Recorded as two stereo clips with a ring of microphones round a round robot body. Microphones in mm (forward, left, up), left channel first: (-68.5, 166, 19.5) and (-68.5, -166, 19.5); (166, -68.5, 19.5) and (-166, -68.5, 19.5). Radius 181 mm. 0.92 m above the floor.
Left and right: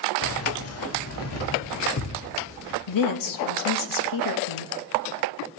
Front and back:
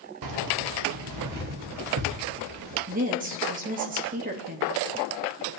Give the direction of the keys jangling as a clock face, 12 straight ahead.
7 o'clock.